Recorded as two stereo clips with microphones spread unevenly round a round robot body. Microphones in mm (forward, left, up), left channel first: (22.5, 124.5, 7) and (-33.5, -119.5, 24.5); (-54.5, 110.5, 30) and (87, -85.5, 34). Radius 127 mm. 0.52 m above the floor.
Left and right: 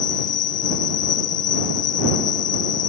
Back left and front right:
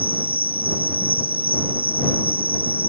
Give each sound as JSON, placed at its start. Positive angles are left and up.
{"t": 0.0, "sound": "an insect", "azimuth_deg": 30}